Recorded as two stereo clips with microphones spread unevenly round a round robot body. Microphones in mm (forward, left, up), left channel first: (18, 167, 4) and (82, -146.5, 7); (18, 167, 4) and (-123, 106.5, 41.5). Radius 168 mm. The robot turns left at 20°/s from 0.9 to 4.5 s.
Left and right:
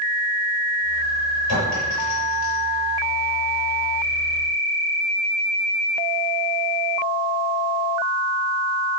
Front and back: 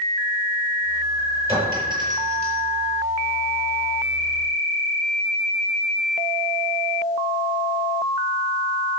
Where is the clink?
145° left, 5 m; by 2.6 s 125° left, 5 m.